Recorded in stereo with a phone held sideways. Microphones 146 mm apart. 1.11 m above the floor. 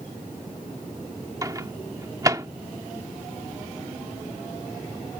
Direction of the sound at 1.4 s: 25° right (ahead or behind).